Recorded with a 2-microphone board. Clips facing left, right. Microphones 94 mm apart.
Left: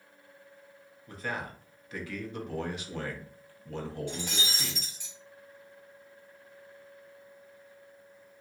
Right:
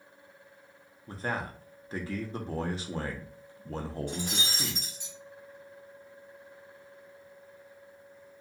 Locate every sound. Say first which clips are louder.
1.1 s a man speaking: right 2 dB; 35° right (ahead or behind), 0.6 m
4.1 s breaking glass: right 1 dB; 50° right (ahead or behind), 1.6 m